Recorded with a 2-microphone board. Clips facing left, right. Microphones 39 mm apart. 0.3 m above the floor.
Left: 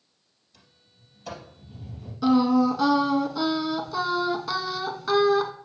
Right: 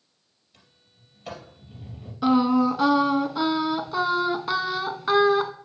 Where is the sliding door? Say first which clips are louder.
Even; 35° right (ahead or behind), 2.5 m.